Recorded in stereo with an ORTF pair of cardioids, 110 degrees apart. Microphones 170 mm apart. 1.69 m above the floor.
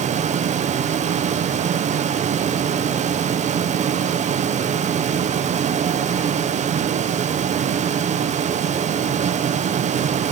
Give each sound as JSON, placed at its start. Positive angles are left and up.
{"t": 0.0, "sound": "a fan", "azimuth_deg": -45, "distance_m": 1.9}